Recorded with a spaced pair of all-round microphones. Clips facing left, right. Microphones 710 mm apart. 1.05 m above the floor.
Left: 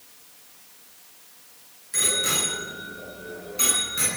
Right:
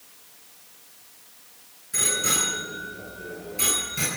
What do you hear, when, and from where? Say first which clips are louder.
1.9 s a bicycle bell: even; 40° right (ahead or behind), 9 m; by 4.1 s 45° right (ahead or behind), 8 m